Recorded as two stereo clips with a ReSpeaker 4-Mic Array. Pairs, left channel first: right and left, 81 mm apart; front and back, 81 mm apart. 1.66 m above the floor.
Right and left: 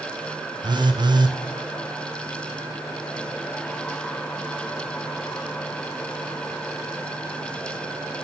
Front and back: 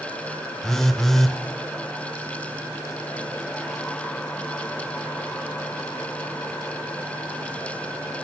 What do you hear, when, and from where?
0.6 s a phone buzzing: 85° left, 0.8 m